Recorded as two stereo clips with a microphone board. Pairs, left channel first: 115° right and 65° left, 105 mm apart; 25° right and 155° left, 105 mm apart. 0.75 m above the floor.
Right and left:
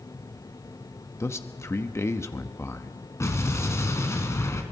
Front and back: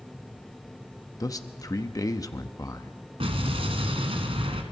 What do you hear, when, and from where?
1.2 s a man speaking: 60° right, 1.0 m
3.2 s an explosion: 175° right, 2 m